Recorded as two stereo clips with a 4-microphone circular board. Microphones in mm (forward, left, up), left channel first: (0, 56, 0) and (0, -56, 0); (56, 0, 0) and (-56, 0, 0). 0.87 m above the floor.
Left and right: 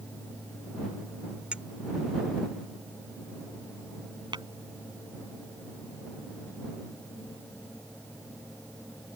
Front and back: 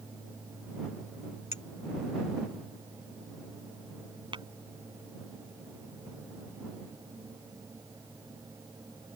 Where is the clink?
10° right.